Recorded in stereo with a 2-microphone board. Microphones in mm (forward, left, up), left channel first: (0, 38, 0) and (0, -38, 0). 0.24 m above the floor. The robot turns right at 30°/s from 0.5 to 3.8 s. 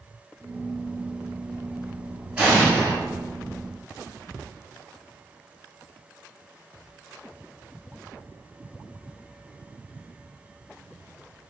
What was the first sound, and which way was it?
An explosion, 15° right (ahead or behind).